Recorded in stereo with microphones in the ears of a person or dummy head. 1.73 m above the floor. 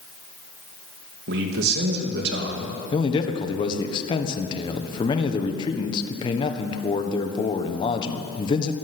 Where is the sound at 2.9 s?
30° left (ahead or behind), 1.4 m.